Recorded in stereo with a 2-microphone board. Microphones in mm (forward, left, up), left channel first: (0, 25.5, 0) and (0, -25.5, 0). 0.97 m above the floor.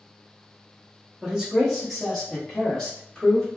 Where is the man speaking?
15° right (ahead or behind), 0.9 m; by 3.5 s 15° left (ahead or behind), 1.6 m.